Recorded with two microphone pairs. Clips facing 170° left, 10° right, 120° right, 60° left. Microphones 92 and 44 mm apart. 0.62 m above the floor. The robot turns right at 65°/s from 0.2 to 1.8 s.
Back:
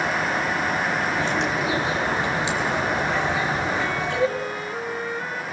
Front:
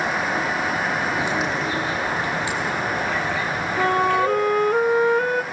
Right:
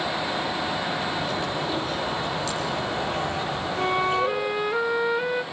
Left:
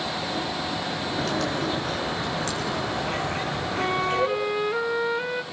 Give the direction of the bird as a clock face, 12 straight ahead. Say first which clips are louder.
Even, left 1 dB; 10 o'clock.